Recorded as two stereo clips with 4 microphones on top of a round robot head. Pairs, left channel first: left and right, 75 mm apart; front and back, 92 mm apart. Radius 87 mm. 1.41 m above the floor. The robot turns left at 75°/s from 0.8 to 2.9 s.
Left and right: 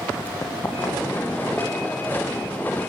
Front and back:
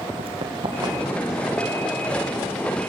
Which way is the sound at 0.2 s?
155° left.